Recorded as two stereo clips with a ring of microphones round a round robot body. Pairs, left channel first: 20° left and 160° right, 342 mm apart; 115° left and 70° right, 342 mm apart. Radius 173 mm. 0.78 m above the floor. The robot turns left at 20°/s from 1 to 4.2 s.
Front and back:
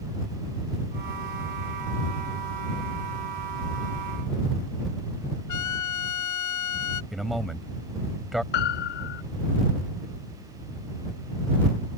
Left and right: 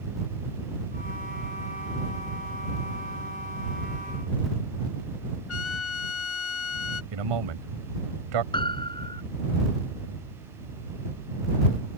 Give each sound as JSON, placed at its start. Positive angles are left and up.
{"t": 5.5, "sound": "a trumpet", "azimuth_deg": 60}
{"t": 7.1, "sound": "a man speaking", "azimuth_deg": -70}
{"t": 8.5, "sound": "a piano", "azimuth_deg": 35}